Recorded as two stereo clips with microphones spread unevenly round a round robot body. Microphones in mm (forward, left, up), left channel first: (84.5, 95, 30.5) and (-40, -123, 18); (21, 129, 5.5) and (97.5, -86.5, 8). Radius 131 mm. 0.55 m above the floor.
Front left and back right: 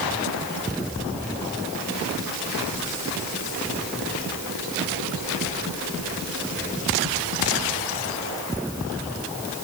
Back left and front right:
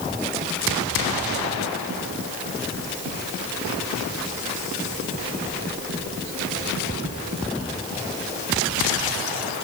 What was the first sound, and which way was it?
Only background noise.